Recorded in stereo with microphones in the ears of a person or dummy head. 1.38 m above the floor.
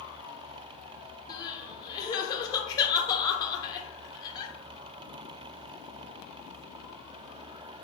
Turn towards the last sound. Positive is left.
turn(degrees=25)  # may be behind; listen again after turning